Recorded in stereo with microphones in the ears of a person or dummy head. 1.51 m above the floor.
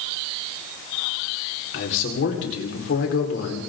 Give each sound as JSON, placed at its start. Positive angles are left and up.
{"t": 1.7, "sound": "a man speaking", "side_deg": 65, "distance_m": 5.5}